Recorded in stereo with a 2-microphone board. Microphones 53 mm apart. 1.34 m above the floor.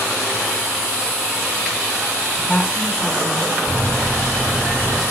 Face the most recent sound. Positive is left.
turn(degrees=25)  # may be behind; listen again after turning